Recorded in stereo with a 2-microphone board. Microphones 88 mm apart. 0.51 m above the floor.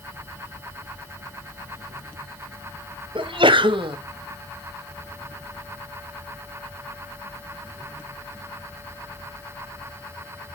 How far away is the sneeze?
About 2 m.